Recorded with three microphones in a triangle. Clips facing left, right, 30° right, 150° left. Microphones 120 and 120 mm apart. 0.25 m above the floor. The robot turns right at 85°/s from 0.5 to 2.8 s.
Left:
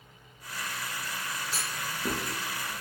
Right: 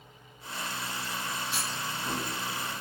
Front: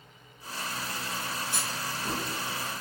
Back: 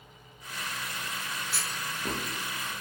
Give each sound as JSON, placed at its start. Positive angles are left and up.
{"t": 1.5, "sound": "a clunk", "azimuth_deg": 40, "distance_m": 0.6}